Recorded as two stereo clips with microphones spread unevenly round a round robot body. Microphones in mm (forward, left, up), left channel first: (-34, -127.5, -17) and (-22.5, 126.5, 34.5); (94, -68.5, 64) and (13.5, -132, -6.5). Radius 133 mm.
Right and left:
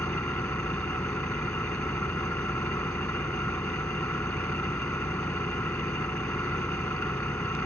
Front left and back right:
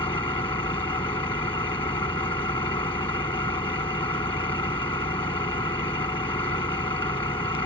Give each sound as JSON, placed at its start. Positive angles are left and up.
{"t": 0.0, "sound": "an engine running", "azimuth_deg": -10}